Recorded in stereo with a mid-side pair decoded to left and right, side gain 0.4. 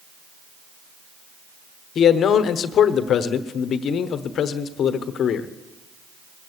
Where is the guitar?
No guitar in this recording.